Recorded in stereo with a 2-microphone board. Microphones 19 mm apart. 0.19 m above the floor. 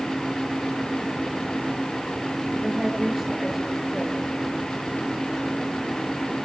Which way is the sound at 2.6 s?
20° right (ahead or behind).